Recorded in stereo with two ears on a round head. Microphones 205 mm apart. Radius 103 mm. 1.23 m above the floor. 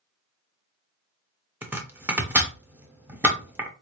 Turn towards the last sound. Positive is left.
turn(degrees=-10)  # may be behind; listen again after turning